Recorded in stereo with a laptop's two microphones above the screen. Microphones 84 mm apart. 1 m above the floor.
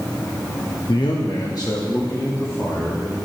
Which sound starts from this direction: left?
A man speaking, at 0.9 s.